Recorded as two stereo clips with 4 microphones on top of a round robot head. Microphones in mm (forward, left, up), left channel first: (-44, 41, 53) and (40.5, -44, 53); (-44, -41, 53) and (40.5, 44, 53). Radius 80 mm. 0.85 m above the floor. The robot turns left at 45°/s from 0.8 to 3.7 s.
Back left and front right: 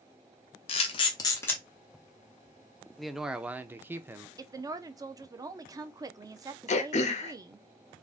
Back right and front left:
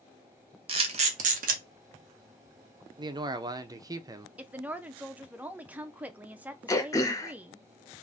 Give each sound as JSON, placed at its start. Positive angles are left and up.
{"t": 0.7, "sound": "a camera shutter", "azimuth_deg": 90, "distance_m": 0.7}
{"t": 3.0, "sound": "a man speaking", "azimuth_deg": 45, "distance_m": 0.5}
{"t": 4.4, "sound": "a woman speaking", "azimuth_deg": -20, "distance_m": 0.5}
{"t": 6.7, "sound": "throat clearing", "azimuth_deg": 160, "distance_m": 0.5}